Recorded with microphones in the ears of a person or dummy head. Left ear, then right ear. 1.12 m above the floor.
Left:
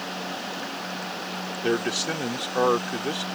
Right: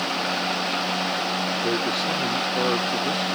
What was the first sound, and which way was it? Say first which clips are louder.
A man speaking: left 3 dB; 25° left (ahead or behind).